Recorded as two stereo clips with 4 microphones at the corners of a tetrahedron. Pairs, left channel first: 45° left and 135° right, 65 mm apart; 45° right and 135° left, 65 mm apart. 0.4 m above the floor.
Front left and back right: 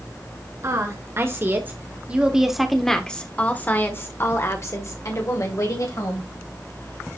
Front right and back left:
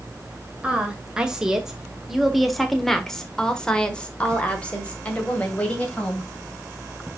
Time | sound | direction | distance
0.6 | a woman speaking | 155° right | 1.9 m